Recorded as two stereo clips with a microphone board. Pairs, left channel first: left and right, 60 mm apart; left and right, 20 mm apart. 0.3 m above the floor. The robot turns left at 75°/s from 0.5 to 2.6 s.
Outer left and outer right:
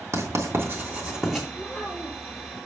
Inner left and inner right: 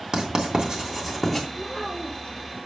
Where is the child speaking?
175° right, 4 m; by 2.4 s 120° left, 4 m.